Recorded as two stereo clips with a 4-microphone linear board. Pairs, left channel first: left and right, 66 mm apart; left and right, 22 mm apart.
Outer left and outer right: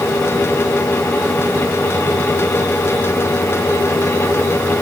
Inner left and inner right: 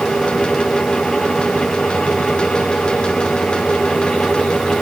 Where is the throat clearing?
I don't hear throat clearing.